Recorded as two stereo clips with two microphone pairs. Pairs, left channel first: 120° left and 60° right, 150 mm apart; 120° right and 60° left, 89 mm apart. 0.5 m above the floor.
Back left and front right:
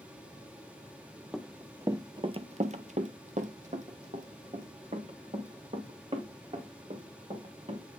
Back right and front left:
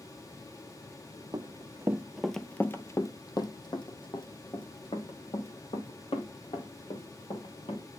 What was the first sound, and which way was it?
Running footsteps, 30° left.